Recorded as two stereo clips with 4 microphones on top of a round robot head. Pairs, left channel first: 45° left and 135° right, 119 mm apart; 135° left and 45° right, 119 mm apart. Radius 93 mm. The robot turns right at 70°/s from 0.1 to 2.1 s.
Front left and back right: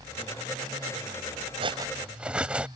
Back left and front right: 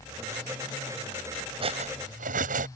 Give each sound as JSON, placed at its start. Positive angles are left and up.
{"t": 1.6, "sound": "cutlery clinking", "azimuth_deg": -90}